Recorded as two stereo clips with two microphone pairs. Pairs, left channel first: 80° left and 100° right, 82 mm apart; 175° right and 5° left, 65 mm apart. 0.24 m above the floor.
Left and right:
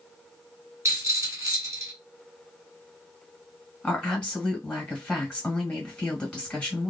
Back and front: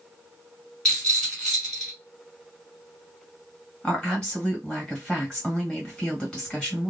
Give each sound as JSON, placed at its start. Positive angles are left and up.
{"t": 0.8, "sound": "a rattle", "azimuth_deg": -95, "distance_m": 1.9}
{"t": 3.8, "sound": "a woman speaking", "azimuth_deg": 140, "distance_m": 1.6}